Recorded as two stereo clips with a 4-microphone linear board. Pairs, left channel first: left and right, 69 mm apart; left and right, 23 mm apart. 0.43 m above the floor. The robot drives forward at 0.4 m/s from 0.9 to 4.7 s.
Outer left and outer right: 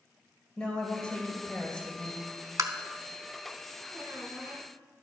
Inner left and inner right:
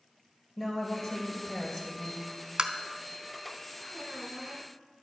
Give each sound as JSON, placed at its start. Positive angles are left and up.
{"t": 0.6, "sound": "a woman speaking", "side_deg": 10, "distance_m": 1.9}
{"t": 2.6, "sound": "tapping", "side_deg": -50, "distance_m": 0.6}
{"t": 3.9, "sound": "a squeak", "side_deg": -25, "distance_m": 3.5}